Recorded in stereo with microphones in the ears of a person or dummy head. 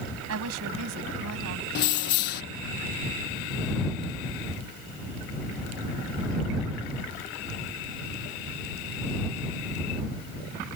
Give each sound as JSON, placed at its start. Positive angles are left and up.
{"t": 0.3, "sound": "a woman speaking", "side_deg": -85}
{"t": 1.8, "sound": "keys jangling", "side_deg": 55}